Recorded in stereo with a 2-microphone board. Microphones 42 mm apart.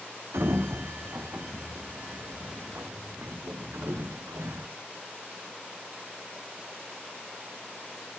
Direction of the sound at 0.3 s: 70° right (ahead or behind).